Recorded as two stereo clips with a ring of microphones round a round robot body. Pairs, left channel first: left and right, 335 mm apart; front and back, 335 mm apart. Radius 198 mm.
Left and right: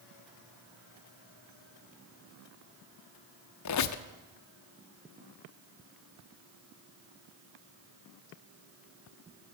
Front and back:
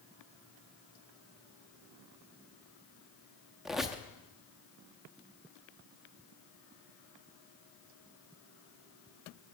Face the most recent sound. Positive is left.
turn(degrees=90)